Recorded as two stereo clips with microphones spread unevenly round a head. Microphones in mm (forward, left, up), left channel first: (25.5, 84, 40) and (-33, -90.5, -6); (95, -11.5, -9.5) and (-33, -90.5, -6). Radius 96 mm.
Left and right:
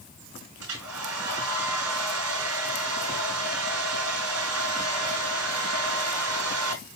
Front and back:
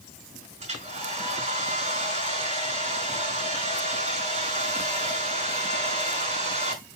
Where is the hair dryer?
110° right, 5 m.